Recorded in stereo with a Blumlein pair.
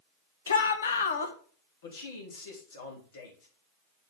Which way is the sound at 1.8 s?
60° left.